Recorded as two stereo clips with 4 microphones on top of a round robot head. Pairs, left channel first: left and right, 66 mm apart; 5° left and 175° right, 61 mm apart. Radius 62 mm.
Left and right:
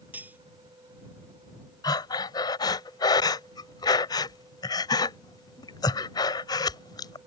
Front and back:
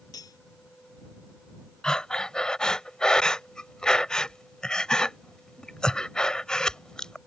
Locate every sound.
0.1 s cutlery clinking: 25° right
1.8 s breathing: 85° left